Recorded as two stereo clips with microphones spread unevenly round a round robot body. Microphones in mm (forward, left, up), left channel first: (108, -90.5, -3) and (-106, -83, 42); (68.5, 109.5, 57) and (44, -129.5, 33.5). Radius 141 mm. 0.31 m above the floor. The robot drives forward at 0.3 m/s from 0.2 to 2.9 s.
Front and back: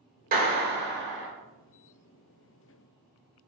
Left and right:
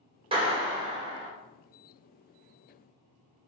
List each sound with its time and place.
0.3 s a clap: 140° right, 0.8 m; by 1.3 s 155° right, 1.0 m